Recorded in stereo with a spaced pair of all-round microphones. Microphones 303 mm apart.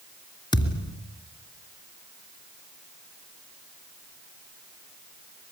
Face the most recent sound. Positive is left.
turn(degrees=15)  # may be behind; listen again after turning